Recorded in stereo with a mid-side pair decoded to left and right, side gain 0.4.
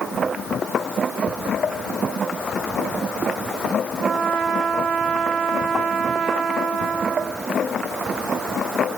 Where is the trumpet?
65° right, 1.2 m.